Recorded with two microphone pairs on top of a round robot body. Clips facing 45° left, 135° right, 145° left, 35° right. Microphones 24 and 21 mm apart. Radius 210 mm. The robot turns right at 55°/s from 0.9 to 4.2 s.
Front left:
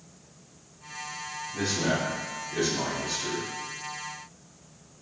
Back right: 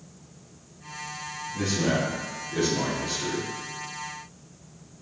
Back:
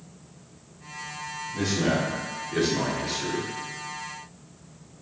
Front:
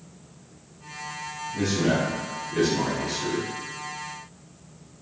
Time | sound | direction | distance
1.5 | a man speaking | 80° left | 3 m